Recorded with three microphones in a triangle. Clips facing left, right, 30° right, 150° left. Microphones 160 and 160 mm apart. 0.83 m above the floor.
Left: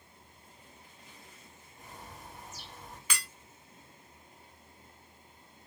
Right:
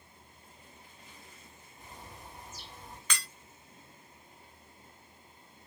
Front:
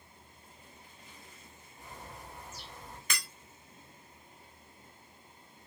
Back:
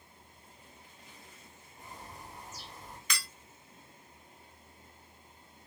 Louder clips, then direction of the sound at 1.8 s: Left 1 dB, even; 115° left.